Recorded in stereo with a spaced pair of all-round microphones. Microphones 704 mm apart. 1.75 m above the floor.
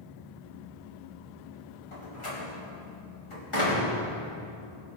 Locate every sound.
1.9 s a door slam: 45° left (ahead or behind), 3 m